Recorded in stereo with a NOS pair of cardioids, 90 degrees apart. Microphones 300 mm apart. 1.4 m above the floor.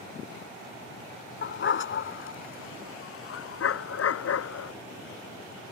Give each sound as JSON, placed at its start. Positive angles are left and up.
{"t": 1.4, "sound": "a dog barking", "azimuth_deg": 40}